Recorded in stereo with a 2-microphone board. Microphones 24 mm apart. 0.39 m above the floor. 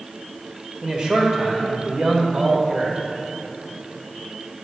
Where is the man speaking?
40° right (ahead or behind), 1.4 m.